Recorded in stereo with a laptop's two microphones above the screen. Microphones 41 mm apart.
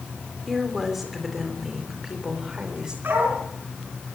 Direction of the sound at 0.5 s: Centre (ahead or behind).